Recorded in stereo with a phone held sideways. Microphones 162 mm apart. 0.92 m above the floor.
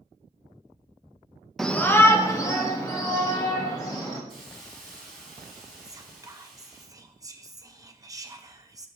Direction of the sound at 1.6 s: Centre (ahead or behind).